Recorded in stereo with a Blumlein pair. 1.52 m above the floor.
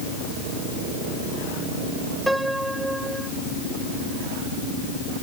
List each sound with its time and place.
2.3 s a piano: 5° right